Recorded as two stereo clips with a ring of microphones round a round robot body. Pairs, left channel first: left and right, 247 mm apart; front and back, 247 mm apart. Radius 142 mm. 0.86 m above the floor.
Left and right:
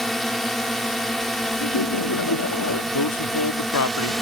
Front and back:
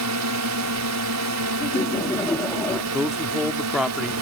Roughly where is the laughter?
Left.